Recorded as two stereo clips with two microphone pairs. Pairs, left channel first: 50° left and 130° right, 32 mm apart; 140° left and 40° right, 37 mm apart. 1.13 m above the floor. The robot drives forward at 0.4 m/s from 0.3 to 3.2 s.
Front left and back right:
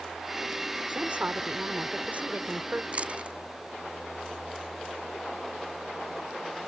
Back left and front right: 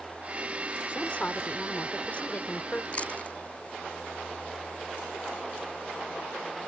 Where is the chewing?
170° right.